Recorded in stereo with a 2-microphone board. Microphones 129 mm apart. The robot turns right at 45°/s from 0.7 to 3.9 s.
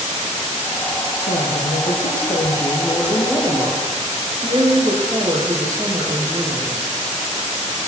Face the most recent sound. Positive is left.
turn(degrees=-155)